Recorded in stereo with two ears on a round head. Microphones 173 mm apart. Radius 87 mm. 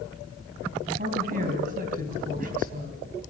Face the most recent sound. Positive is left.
turn(degrees=-50)  # may be behind; listen again after turning